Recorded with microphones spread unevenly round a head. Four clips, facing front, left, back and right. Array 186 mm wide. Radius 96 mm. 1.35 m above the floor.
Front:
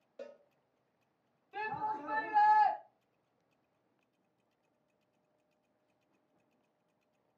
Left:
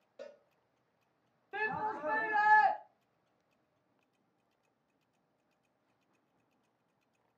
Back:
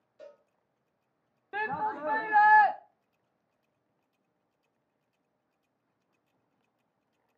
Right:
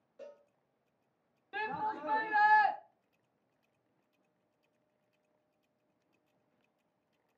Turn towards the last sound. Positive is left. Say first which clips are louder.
# even, back 5 dB
turn(degrees=170)